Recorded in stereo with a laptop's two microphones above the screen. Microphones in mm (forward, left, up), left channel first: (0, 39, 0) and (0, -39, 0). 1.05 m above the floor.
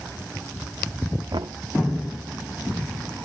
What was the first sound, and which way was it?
Knocking, 85° right.